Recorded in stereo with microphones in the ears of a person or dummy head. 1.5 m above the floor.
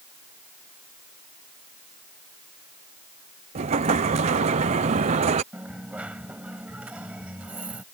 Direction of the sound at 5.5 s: 10° right (ahead or behind).